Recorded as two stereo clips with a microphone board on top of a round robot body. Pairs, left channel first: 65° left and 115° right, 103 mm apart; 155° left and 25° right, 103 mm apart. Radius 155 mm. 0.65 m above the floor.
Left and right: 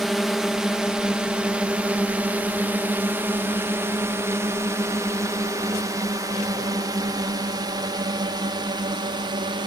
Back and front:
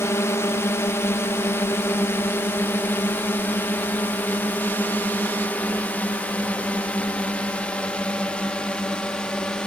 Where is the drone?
160° left; by 9.7 s 125° right.